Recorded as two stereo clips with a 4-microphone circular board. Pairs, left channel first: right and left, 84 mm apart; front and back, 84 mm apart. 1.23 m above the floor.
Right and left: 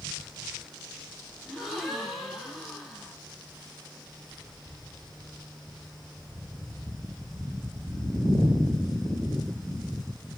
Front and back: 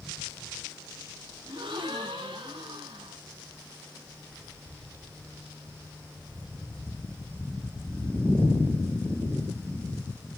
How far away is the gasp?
About 2.5 m.